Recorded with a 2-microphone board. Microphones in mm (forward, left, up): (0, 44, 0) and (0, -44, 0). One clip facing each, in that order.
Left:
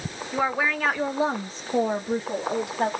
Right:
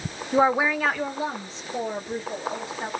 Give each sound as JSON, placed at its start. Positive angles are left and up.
{"t": 0.3, "sound": "a woman speaking", "side_deg": -30, "distance_m": 0.6}